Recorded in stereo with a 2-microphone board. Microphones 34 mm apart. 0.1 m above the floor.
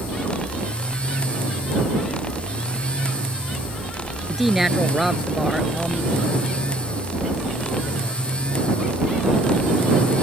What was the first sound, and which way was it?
A woman speaking, 5° right (ahead or behind).